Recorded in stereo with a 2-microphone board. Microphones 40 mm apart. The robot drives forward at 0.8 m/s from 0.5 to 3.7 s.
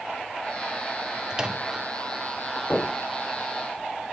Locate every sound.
1.3 s a microwave: 20° right (ahead or behind), 0.5 m
2.7 s knocking: 30° left (ahead or behind), 3 m